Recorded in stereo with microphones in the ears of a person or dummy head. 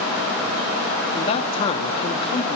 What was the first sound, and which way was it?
A man speaking, 40° left (ahead or behind).